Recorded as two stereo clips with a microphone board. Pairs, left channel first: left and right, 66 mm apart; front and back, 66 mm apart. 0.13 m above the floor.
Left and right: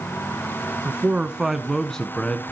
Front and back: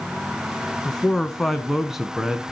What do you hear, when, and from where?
0.8 s a man speaking: 65° right, 1.1 m; by 2.5 s 115° left, 1.1 m